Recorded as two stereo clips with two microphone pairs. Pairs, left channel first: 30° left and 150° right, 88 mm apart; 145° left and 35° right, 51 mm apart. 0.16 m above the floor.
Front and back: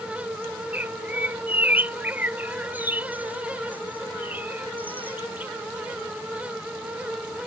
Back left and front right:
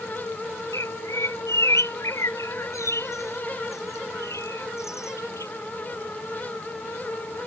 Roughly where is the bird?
Behind left.